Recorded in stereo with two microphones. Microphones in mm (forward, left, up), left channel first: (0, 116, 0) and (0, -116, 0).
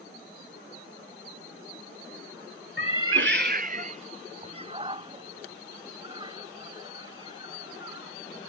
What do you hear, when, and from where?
2.8 s a cat meowing: 55° right (ahead or behind); by 8.2 s 15° right (ahead or behind)